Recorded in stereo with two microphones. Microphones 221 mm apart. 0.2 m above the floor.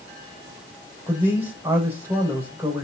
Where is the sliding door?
No sliding door in this recording.